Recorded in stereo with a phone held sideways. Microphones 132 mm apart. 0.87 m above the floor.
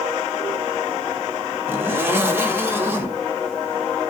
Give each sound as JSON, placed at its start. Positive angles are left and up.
{"t": 1.7, "sound": "a zipper", "side_deg": -15, "distance_m": 0.7}